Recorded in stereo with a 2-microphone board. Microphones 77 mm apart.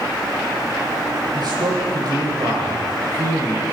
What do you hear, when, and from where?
1.3 s a man speaking: 55° right (ahead or behind), 8 m